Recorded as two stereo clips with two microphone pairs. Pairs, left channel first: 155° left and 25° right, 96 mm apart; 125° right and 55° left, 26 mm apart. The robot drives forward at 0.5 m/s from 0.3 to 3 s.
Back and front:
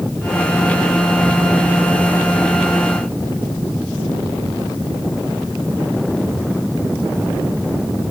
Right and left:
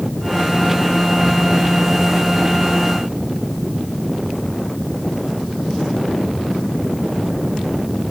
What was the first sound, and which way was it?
Only background noise.